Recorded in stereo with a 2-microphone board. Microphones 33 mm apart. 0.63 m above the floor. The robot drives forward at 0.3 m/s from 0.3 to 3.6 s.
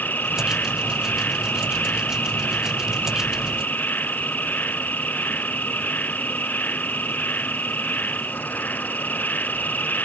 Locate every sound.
0.0 s an insect: 65° left (ahead or behind); by 10.0 s 60° left (ahead or behind)